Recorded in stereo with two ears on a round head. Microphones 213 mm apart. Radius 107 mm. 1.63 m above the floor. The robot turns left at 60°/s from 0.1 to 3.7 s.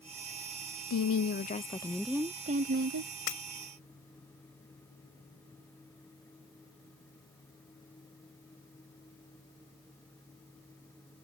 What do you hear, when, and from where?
0.9 s a woman speaking: 70° left; by 3.1 s 65° right
3.3 s breaking glass: 70° left (ahead or behind)